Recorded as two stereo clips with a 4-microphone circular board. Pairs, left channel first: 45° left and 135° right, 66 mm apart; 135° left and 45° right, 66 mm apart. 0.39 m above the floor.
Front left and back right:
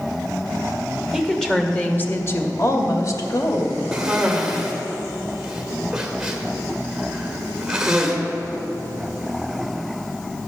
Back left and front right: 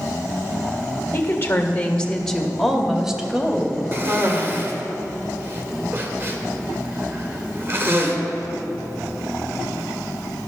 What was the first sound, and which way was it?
A woman speaking, 140° left.